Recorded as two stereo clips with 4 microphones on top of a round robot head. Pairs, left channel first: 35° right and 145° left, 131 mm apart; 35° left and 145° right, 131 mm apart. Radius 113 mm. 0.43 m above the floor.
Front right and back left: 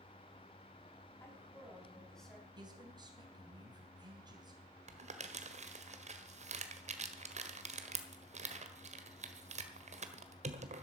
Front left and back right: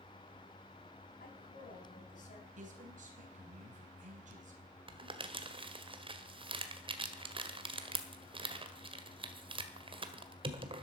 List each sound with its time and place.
1.2 s a woman speaking: 35° left, 5 m; by 2.5 s 55° left, 4.5 m
2.6 s a man speaking: 160° right, 3.5 m
4.9 s crumpling: 170° left, 1.6 m